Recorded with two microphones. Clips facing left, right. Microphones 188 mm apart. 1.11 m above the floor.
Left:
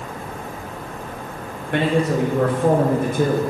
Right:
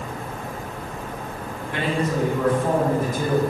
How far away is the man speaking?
About 1.9 m.